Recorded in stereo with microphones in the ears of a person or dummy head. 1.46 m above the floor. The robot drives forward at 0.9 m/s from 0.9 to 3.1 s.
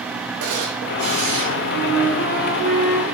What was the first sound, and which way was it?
A camera shutter, 50° right (ahead or behind).